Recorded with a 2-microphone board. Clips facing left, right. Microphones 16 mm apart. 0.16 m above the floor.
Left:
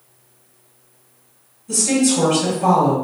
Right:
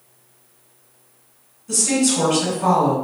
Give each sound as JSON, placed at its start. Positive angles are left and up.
{"t": 1.7, "sound": "a woman speaking", "side_deg": -40, "distance_m": 1.8}